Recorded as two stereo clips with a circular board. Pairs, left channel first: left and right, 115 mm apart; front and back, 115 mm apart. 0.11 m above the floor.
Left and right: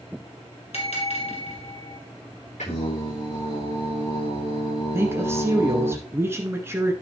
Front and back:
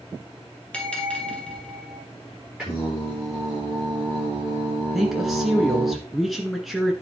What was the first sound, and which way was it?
A bell, 80° left.